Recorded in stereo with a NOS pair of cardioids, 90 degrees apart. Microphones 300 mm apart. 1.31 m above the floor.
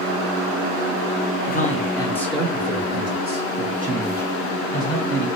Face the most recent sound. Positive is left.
turn(degrees=-40)